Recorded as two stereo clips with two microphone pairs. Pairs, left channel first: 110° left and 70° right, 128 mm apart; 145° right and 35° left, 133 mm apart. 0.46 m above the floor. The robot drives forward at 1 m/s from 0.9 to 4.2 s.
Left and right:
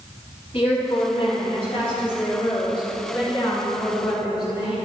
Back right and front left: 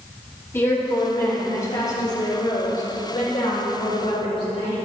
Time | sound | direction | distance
0.5 | a woman speaking | 145° left | 3.5 m